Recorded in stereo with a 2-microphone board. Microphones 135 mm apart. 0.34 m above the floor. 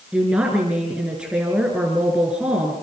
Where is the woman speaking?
5° right (ahead or behind), 5.5 m.